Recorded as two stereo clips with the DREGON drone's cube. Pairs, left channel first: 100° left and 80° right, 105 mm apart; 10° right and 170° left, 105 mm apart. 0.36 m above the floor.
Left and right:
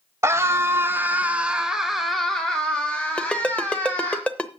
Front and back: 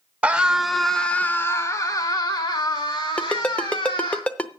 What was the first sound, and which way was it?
A scream, 120° right.